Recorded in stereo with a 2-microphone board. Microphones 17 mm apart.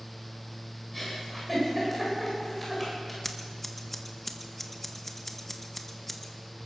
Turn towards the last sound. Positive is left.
turn(degrees=15)  # may be behind; listen again after turning